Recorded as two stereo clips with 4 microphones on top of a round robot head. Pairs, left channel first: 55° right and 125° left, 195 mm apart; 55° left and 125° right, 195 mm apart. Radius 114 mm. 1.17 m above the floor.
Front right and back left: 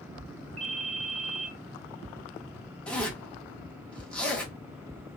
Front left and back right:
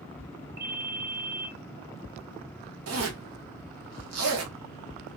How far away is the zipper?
About 0.9 m.